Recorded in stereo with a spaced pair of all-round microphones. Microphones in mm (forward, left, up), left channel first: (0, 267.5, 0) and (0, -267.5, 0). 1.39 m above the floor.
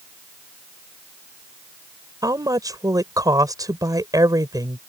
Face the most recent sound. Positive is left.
turn(degrees=-5)  # may be behind; listen again after turning